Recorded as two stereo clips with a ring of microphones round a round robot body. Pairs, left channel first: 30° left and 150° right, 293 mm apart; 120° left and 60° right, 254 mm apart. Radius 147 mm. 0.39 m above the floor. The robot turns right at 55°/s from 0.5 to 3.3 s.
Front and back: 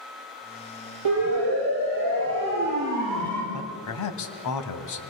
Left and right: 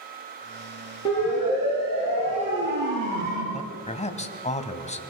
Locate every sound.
1.1 s a siren: 165° right, 9 m; by 3.4 s 55° right, 8 m
3.5 s a man speaking: 55° left, 2 m